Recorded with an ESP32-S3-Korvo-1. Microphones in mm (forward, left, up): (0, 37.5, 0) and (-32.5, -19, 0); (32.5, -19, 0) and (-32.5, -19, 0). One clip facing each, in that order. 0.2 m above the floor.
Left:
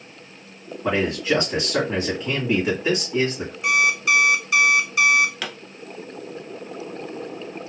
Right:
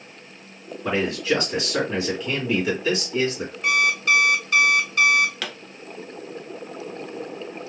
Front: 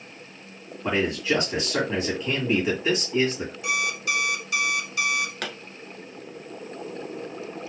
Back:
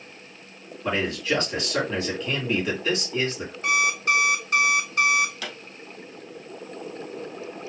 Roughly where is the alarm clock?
Behind left.